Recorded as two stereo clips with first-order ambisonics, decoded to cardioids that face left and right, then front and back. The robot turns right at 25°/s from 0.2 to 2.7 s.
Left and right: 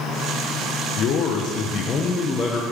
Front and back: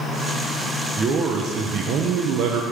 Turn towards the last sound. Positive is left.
turn(degrees=165)